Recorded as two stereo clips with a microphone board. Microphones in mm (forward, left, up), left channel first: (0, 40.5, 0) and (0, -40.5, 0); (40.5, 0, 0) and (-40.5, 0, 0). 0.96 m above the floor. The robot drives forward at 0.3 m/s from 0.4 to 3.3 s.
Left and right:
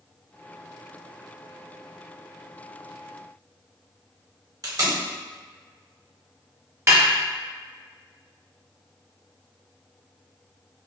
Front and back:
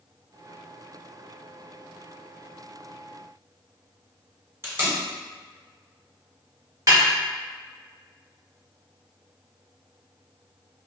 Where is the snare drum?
140° right, 1.3 m.